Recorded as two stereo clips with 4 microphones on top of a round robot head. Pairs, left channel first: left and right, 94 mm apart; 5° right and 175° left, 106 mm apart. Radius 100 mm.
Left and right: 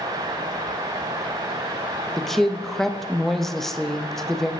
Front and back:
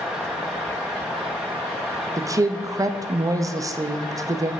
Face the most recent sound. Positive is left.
turn(degrees=175)